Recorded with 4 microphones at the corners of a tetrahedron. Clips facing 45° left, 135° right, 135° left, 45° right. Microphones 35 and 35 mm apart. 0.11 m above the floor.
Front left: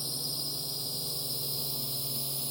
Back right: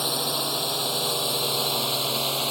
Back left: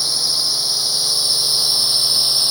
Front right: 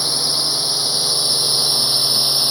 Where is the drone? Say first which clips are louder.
Back right 12 dB, even; 120° right.